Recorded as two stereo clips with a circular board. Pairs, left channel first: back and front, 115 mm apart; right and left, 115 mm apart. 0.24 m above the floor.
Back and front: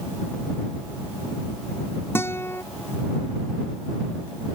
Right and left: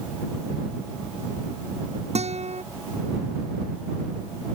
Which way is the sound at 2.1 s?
110° left.